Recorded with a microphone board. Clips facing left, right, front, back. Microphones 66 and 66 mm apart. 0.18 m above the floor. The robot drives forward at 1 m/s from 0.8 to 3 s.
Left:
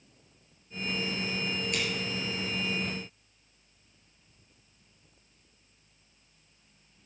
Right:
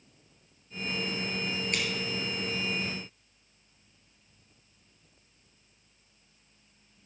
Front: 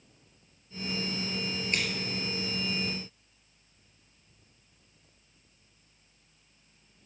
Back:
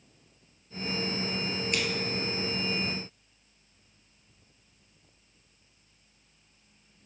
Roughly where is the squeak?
I don't hear a squeak.